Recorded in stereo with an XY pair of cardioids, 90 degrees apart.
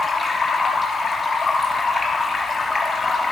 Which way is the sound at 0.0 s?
40° left.